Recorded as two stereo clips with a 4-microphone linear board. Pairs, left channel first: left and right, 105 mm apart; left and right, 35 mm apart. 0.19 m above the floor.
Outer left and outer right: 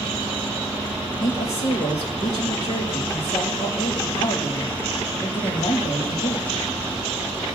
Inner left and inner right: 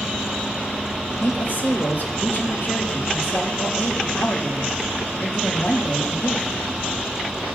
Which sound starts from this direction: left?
A woman speaking, at 1.2 s.